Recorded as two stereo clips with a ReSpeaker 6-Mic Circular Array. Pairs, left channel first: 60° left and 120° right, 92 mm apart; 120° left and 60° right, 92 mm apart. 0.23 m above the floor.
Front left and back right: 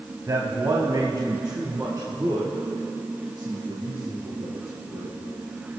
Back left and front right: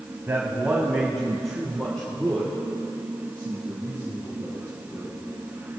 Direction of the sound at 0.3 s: 110° right.